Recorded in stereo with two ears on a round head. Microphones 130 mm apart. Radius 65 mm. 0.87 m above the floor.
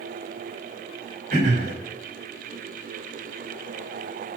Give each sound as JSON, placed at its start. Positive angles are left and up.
{"t": 1.3, "sound": "throat clearing", "side_deg": -60, "distance_m": 3.5}